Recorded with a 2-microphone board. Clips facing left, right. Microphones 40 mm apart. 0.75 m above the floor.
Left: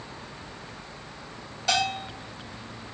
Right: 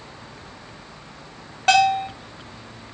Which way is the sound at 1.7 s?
45° right (ahead or behind).